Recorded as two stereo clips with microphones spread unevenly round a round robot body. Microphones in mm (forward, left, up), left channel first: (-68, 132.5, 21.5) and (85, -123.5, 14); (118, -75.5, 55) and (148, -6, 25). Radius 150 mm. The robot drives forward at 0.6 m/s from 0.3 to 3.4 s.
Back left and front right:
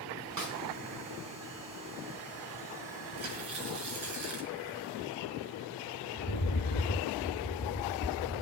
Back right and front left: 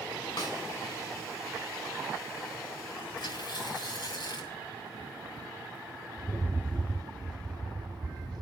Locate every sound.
0.4 s a snare drum: 85° right, 5 m; by 0.6 s 90° right, 5 m
3.2 s tearing paper: 100° right, 3.5 m
6.2 s a rattle: 140° left, 2.5 m